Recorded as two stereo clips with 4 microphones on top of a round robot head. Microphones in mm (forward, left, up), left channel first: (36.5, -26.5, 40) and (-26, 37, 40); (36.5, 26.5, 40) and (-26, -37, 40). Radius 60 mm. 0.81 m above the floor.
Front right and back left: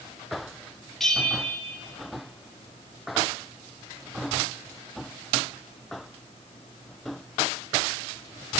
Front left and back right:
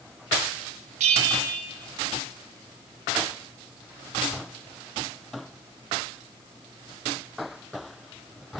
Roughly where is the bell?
Behind right.